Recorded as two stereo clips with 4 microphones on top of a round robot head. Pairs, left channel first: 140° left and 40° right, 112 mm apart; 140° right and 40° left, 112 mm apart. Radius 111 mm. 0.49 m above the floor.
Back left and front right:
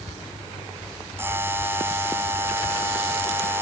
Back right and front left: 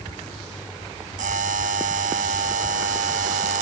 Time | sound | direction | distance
1.2 | a buzzer | 30° left | ?